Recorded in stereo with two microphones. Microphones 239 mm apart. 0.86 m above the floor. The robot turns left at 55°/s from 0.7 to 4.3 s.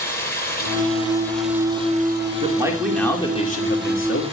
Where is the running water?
40° left, 8.5 m; by 4.3 s 160° right, 8.5 m.